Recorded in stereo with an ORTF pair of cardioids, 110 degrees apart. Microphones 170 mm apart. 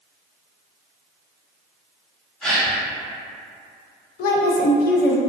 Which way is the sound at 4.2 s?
65° left.